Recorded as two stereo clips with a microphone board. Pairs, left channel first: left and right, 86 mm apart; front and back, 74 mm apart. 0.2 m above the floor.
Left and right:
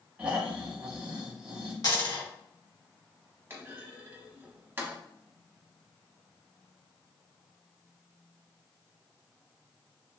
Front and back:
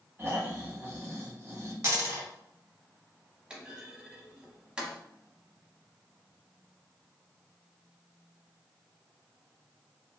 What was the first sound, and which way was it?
Snoring, 155° right.